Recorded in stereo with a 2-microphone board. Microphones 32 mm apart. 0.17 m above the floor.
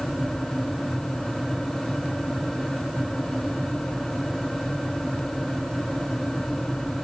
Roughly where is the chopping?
I don't hear chopping.